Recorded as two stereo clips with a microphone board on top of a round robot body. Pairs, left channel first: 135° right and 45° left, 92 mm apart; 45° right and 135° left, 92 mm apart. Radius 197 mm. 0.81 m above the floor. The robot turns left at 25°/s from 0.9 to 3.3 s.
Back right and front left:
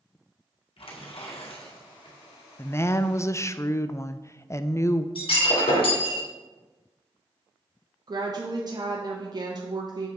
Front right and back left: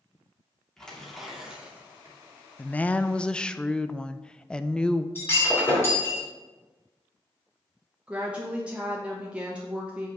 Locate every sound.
0.8 s tearing paper: 130° right, 2 m; by 2.2 s 160° right, 2 m
2.6 s a woman speaking: 100° right, 0.6 m; by 5.0 s 120° right, 0.6 m
5.2 s breaking glass: 110° right, 3 m
8.1 s a woman speaking: 60° left, 1.2 m